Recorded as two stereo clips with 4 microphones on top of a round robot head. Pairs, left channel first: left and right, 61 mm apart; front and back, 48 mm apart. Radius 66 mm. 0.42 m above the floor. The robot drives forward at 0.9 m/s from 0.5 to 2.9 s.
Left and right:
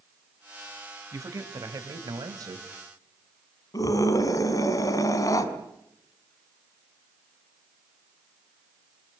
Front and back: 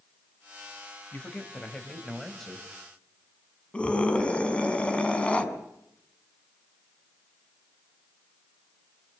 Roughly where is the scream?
Ahead left.